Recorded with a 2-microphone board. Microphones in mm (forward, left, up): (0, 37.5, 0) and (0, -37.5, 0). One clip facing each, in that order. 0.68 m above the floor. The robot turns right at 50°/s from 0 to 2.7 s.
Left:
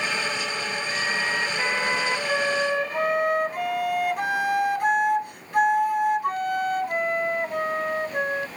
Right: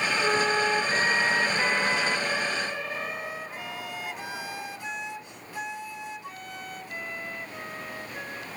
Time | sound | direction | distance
0.2 | a flute | 65° right | ?